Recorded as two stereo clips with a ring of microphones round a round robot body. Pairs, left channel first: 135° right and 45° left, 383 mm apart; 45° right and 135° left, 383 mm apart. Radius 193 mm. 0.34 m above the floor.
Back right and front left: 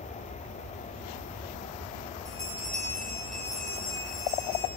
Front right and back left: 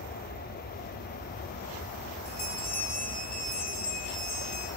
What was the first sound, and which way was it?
A bell, 45° right.